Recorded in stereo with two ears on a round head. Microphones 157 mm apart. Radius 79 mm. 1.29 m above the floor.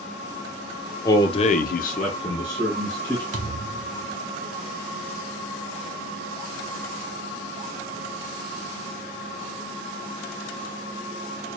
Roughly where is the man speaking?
Centre.